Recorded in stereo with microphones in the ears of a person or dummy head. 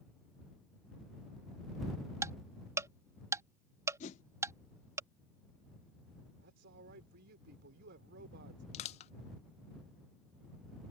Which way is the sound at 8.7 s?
35° left (ahead or behind).